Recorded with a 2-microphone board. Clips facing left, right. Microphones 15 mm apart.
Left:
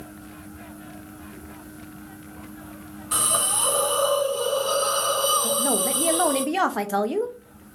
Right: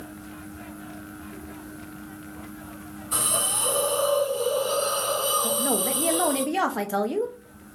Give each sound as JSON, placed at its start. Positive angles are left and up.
{"t": 3.1, "sound": "a hiss", "side_deg": 65, "distance_m": 2.0}
{"t": 5.4, "sound": "a woman speaking", "side_deg": 10, "distance_m": 0.6}